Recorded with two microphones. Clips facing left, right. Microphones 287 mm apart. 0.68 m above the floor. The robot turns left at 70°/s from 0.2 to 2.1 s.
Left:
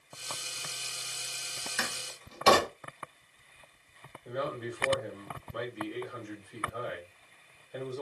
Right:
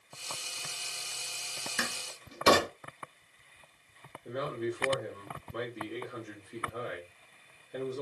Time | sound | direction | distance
1.8 | a door slam | 35° right (ahead or behind) | 1.3 m
4.2 | a man speaking | 45° right (ahead or behind) | 2.5 m